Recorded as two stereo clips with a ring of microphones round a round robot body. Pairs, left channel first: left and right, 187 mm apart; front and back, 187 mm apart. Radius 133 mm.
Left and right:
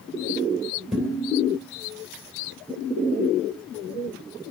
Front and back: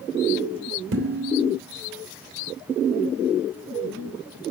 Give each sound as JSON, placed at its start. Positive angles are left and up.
{"t": 0.9, "sound": "dishes clattering", "azimuth_deg": 180, "distance_m": 2.5}